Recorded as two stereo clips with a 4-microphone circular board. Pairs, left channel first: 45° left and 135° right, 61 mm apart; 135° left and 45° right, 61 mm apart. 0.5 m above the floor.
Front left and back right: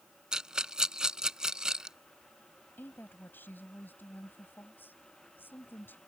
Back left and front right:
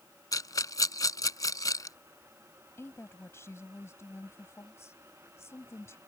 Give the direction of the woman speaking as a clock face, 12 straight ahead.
9 o'clock.